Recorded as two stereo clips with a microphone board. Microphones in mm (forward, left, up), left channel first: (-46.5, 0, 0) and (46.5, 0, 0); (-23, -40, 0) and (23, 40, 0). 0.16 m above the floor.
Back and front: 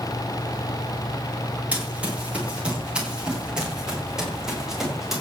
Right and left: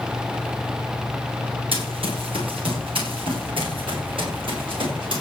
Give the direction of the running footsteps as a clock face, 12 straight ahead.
9 o'clock.